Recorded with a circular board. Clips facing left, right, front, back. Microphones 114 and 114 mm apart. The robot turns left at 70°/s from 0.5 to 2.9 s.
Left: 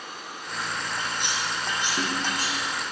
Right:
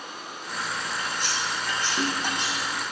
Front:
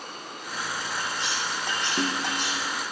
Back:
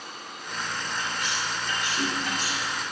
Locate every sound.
1.0 s cutlery clinking: 75° left, 5.5 m; by 2.8 s 55° right, 5.5 m